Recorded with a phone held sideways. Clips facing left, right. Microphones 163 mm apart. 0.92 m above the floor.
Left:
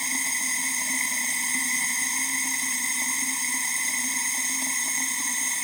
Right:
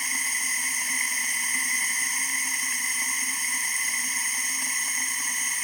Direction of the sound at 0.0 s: 30° left (ahead or behind).